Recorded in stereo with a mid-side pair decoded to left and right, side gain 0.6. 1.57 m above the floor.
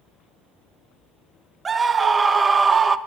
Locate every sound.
1.6 s a scream: 25° right, 0.7 m